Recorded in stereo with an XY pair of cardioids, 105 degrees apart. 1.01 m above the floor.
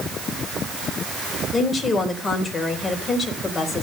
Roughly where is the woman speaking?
Ahead left.